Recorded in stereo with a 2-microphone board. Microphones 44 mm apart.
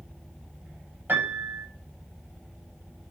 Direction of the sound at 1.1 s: 50° right (ahead or behind).